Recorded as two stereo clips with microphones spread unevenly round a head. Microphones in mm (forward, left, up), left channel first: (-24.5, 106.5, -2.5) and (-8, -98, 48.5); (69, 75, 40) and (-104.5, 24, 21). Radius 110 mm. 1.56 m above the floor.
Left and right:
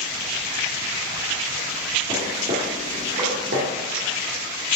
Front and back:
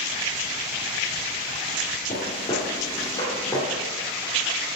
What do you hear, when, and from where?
2.1 s footsteps: 30° right, 2 m; by 3.7 s 55° right, 3 m